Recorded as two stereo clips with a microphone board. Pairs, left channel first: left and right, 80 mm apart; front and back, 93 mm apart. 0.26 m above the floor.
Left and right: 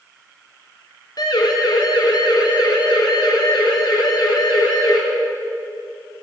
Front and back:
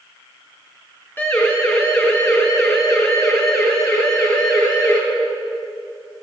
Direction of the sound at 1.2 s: 65° left.